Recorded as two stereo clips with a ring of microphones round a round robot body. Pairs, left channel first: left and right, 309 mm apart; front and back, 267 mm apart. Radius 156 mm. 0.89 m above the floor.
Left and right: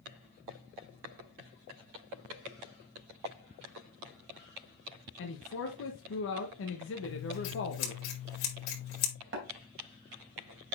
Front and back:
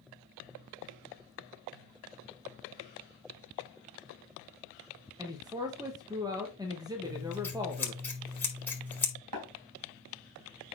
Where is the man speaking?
110° left, 1.1 m.